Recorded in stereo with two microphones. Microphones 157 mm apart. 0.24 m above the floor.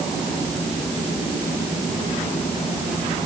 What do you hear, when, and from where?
Only background noise.